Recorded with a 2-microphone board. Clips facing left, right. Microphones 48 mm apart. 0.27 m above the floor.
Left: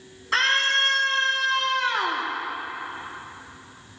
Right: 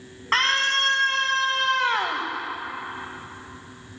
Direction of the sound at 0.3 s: 50° right (ahead or behind).